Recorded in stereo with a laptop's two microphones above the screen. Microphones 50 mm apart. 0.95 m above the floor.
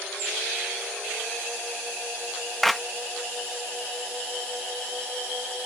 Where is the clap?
5° left (ahead or behind).